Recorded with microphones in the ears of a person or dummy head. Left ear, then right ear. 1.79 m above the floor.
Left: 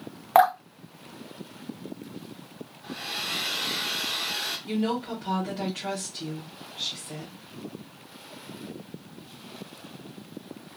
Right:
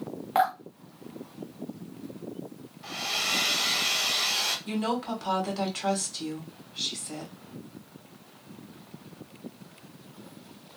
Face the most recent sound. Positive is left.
turn(degrees=-60)  # may be behind; listen again after turning